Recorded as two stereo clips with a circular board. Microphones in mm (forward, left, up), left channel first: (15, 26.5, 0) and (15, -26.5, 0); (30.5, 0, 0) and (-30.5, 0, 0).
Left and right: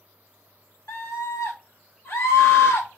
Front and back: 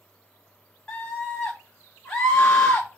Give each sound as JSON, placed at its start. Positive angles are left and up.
{"t": 0.9, "sound": "a scream", "azimuth_deg": 75, "distance_m": 1.1}